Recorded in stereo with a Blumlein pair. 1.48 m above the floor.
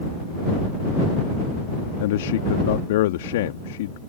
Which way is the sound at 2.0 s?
55° left.